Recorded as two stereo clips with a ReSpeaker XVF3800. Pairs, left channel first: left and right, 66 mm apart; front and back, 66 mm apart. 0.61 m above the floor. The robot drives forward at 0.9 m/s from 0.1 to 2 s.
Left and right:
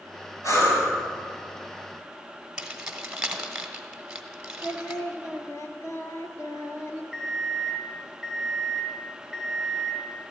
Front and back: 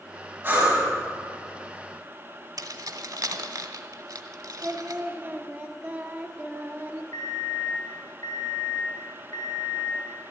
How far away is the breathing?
About 5.5 m.